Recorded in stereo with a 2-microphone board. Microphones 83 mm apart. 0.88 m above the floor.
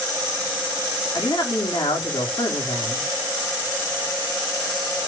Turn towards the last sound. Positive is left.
turn(degrees=60)  # may be behind; listen again after turning